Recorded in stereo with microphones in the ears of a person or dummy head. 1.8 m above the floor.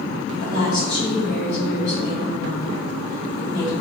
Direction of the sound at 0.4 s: 80° left.